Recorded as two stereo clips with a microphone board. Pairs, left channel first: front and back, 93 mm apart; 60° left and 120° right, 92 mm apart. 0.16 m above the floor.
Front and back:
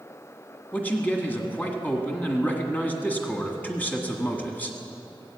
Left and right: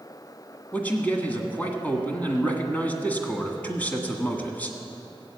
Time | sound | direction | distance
0.7 | a man speaking | 25° left | 1.6 m